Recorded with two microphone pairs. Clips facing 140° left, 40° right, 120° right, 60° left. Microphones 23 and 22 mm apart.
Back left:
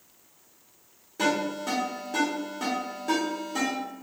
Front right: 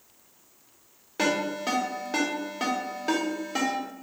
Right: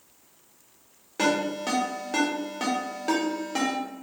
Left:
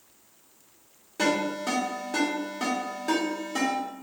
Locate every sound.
1.2 s a ringtone: 65° right, 1.4 m